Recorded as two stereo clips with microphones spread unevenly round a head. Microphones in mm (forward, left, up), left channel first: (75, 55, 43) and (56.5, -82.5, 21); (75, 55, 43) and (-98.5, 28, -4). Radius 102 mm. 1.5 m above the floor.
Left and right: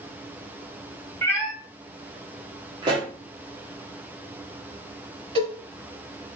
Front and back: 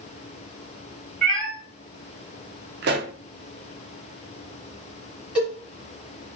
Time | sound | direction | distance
1.2 | a cat meowing | 50° left | 1.4 m
2.8 | a pop | 165° right | 0.5 m
5.3 | a cowbell | 65° right | 1.5 m